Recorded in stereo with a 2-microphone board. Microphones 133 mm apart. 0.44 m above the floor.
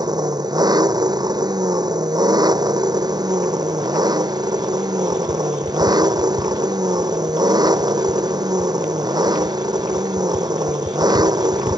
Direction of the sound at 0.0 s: 30° right (ahead or behind).